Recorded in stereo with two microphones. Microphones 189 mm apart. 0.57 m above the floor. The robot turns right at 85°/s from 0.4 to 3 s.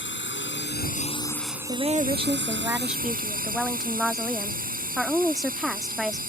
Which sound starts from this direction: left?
A drone, at 0.0 s.